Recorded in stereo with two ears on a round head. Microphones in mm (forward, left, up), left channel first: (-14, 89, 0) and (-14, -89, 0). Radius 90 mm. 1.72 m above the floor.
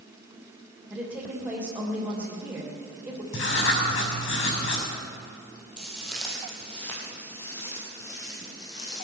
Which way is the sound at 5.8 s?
5° right (ahead or behind).